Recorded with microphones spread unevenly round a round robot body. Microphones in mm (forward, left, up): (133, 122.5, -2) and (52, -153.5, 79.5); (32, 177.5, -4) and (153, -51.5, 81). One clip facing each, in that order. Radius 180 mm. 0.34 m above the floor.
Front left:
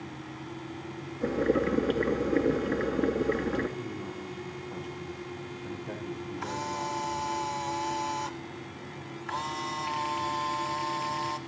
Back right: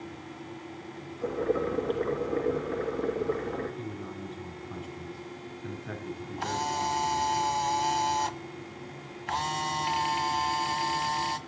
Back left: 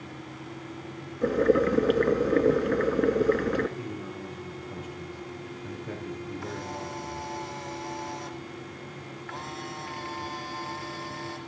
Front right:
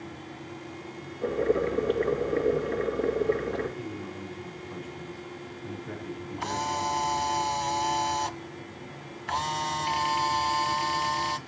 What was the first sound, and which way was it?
Boiling, 125° left.